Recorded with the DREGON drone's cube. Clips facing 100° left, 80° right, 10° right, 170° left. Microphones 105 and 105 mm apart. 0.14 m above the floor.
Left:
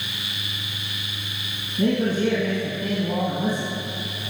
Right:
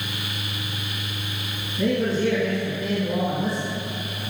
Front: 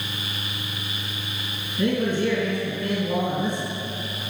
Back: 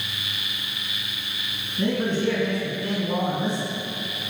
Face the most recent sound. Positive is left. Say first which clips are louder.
# left 1 dB, front 1 dB
turn(degrees=120)